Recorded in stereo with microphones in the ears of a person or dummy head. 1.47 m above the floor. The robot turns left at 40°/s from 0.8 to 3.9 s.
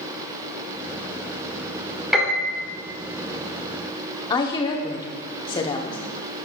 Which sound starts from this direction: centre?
A piano, at 2.1 s.